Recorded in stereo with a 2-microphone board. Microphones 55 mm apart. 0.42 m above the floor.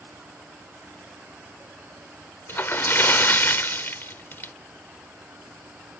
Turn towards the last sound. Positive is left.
turn(degrees=45)  # may be behind; listen again after turning